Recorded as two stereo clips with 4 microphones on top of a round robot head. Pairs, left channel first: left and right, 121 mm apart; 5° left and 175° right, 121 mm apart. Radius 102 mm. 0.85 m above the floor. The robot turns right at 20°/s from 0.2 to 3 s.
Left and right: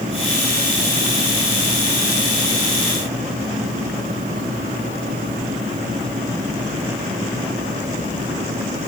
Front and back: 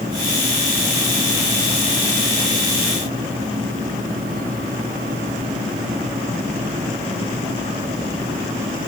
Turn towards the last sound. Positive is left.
No sound to turn to.